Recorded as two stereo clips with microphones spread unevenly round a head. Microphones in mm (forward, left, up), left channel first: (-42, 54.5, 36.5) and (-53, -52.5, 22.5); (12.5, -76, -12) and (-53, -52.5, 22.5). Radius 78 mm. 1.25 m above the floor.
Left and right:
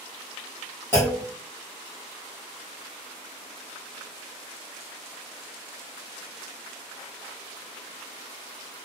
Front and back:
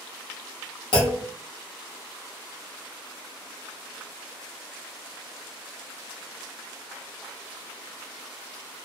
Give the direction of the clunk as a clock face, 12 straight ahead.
11 o'clock.